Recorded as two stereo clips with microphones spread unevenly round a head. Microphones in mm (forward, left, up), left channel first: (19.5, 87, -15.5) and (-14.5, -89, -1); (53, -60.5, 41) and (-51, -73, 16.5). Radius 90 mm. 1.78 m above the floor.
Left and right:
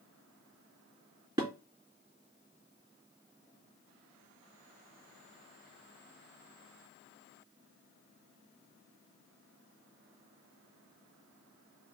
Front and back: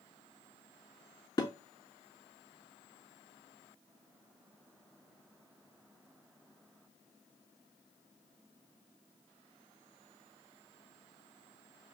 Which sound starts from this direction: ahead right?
Dishes clattering, at 1.4 s.